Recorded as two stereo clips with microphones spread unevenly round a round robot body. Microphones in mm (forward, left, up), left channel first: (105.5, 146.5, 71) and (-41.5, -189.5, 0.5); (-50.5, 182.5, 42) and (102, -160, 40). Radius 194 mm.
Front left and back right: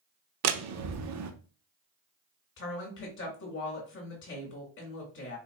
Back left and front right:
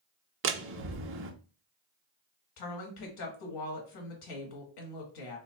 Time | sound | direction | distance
0.4 | a door slam | 115° right | 0.6 m
2.6 | a woman speaking | 130° left | 1.6 m